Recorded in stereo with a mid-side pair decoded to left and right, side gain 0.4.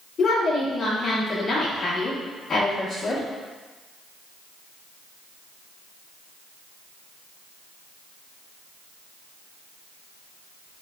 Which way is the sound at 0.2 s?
45° left.